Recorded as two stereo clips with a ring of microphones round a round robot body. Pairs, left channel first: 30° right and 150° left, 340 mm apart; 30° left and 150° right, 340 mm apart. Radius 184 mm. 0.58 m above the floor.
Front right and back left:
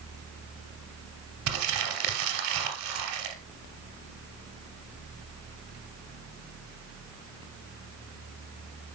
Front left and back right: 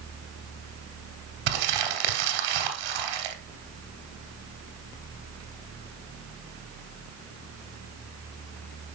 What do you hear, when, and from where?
1.5 s crumpling: 165° right, 2.5 m